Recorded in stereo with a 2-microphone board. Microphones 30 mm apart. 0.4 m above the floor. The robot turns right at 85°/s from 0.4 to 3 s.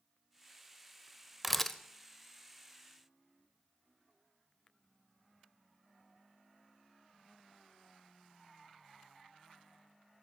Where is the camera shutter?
5° right (ahead or behind), 0.5 m; by 1.8 s 20° left (ahead or behind), 0.5 m.